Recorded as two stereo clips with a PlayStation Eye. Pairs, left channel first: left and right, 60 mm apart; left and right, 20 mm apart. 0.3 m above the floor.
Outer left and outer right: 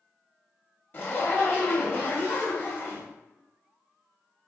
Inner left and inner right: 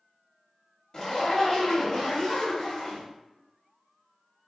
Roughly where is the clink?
I don't hear a clink.